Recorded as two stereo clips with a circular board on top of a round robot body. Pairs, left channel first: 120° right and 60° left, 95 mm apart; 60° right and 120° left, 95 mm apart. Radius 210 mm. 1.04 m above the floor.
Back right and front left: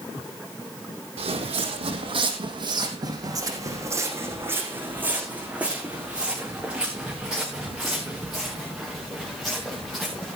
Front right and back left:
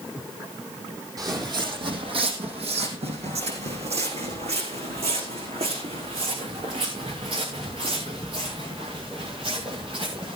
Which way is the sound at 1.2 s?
70° left.